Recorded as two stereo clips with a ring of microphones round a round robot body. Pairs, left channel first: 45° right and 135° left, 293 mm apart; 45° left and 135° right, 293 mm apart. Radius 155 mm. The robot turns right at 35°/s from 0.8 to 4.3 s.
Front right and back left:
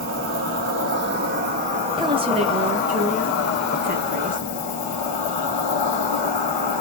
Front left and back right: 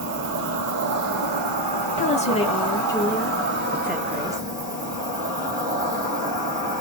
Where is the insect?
Straight behind, 1.3 m; by 6.8 s 55° right, 1.3 m.